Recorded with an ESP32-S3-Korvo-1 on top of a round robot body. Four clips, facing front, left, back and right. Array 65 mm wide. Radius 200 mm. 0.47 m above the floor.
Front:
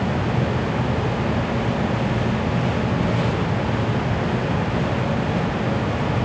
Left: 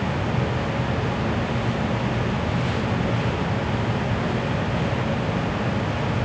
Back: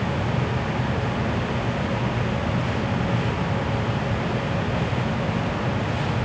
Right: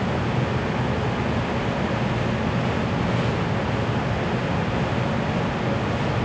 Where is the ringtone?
No ringtone in this recording.